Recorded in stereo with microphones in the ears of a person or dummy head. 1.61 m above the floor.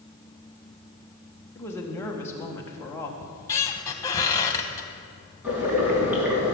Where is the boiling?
15° right (ahead or behind), 4 m.